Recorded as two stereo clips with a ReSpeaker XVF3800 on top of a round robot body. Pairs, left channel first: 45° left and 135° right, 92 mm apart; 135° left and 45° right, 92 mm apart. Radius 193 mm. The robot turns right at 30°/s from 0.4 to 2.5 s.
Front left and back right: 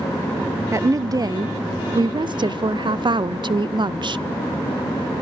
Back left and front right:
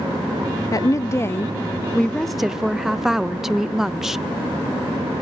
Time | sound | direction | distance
0.7 | a woman speaking | 175° left | 0.5 m